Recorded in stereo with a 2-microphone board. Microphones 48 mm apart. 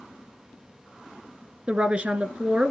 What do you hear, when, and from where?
1.7 s a woman speaking: 25° right (ahead or behind), 1.2 m